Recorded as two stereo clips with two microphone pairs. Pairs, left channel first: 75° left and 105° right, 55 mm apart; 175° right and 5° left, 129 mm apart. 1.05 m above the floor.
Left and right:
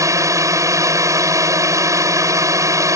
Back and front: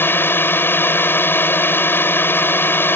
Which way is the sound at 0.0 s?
100° right.